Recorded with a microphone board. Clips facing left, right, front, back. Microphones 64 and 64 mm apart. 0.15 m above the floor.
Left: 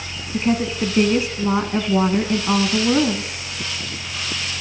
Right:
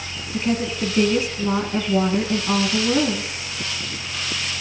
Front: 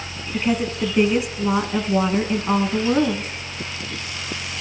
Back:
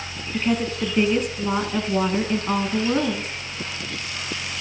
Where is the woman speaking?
75° left, 1.3 m.